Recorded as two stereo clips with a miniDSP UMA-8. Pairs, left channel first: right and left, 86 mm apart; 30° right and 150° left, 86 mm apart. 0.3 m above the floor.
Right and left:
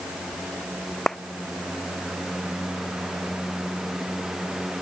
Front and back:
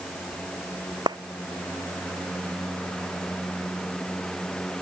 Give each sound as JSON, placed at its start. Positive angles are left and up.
{"t": 1.1, "sound": "a clap", "azimuth_deg": -175}